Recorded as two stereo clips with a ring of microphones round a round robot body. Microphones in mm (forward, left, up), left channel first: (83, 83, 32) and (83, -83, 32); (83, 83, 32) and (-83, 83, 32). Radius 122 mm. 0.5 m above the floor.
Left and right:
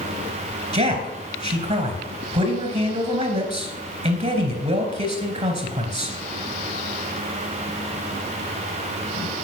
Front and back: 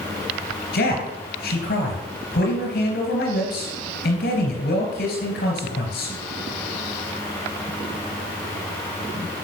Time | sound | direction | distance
0.7 | a man speaking | 45° right | 3 m